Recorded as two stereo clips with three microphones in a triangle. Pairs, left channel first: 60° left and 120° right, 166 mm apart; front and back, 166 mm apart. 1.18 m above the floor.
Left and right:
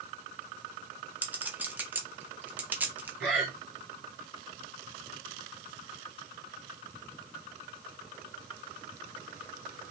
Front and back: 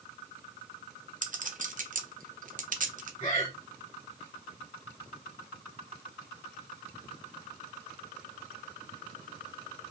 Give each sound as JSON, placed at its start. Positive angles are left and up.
{"t": 1.2, "sound": "a clink", "azimuth_deg": 165, "distance_m": 0.5}
{"t": 3.2, "sound": "breathing", "azimuth_deg": -35, "distance_m": 1.8}